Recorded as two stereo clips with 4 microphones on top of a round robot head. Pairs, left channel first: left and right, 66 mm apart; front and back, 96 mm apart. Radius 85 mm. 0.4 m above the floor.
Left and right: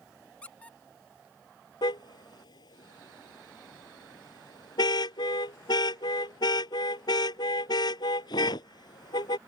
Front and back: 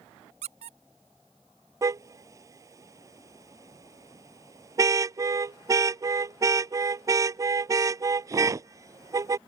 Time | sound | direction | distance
0.4 | a squeak | 165° left | ?
1.8 | a car horn | 125° left | ?